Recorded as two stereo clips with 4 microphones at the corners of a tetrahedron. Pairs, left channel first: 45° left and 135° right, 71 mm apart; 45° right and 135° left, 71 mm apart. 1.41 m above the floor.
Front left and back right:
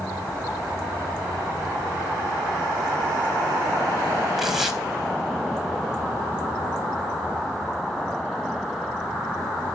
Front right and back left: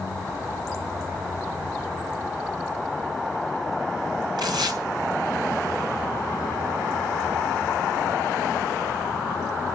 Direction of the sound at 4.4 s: 135° left.